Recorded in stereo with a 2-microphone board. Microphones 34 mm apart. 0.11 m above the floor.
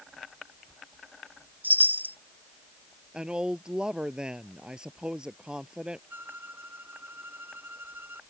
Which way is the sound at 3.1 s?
25° right (ahead or behind).